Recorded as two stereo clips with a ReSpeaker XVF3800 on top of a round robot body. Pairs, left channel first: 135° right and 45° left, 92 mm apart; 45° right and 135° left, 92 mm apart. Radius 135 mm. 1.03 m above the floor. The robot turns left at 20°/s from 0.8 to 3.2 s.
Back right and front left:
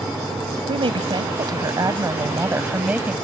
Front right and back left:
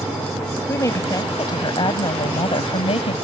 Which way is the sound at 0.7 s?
15° left.